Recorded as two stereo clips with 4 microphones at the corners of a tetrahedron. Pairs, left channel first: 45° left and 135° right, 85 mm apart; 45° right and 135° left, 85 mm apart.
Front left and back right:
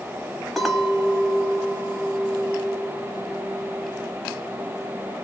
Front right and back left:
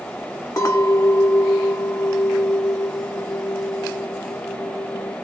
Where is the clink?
45° right, 0.9 m.